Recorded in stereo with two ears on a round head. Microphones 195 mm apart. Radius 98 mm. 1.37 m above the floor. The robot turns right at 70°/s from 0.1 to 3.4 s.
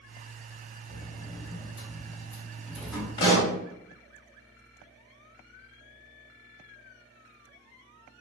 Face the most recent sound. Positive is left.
turn(degrees=15)  # may be behind; listen again after turning